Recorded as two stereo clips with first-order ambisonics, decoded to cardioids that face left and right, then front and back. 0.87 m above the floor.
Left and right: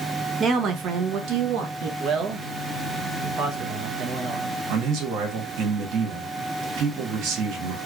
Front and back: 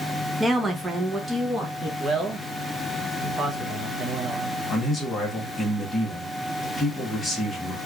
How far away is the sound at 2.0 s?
About 0.7 m.